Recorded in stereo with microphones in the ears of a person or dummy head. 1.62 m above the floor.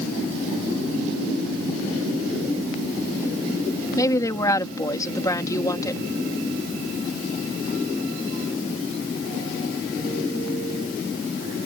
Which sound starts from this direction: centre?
A woman speaking, at 4.0 s.